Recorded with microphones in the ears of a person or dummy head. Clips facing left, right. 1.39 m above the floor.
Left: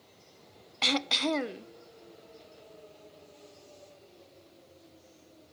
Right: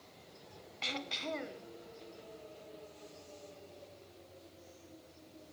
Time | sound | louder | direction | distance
0.8 | throat clearing | left 11 dB | 65° left (ahead or behind) | 0.5 m